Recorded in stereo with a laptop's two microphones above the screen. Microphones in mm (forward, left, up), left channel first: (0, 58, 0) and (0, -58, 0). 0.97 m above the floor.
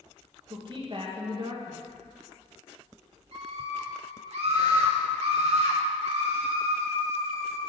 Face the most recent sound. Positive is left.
turn(degrees=-65)  # may be behind; listen again after turning